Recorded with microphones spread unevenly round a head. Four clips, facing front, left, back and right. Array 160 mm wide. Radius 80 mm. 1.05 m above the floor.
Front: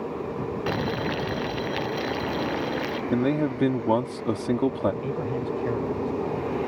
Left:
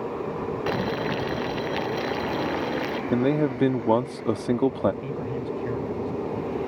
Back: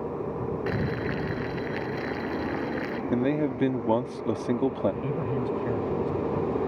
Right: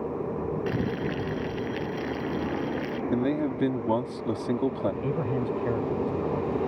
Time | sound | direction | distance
0.7 | boiling | 90° left | ?
3.1 | a man speaking | 105° left | ?
5.0 | a man speaking | 65° right | ?